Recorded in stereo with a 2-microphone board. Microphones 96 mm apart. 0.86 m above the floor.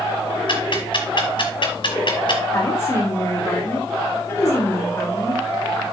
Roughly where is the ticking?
Left.